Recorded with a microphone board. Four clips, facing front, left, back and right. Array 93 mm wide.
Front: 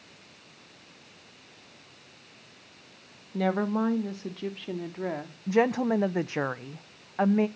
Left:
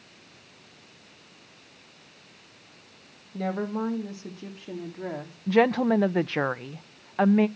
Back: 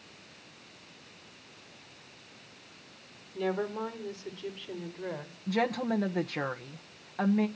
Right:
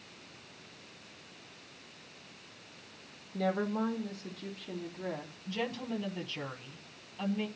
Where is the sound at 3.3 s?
5° left, 2 m; by 5.4 s 25° left, 3 m.